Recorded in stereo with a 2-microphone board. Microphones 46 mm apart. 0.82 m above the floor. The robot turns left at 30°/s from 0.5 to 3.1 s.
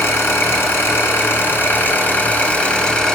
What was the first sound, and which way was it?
An engine running, 95° left.